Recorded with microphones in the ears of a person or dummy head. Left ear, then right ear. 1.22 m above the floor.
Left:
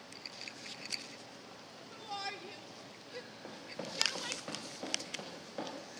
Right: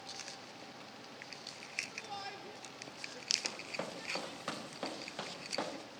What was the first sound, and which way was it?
A shout, 5° left (ahead or behind).